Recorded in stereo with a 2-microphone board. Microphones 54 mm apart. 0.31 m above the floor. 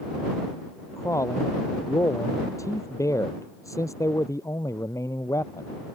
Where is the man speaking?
80° left.